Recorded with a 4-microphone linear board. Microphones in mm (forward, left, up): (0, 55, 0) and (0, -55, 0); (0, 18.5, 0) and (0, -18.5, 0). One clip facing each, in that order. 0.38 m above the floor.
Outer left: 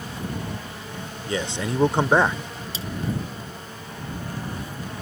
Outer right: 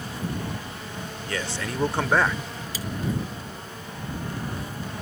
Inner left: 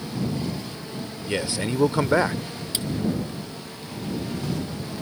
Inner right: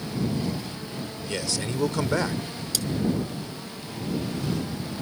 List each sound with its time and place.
1.3 s a man speaking: 20° left (ahead or behind)
2.7 s cutlery clinking: 25° left (ahead or behind)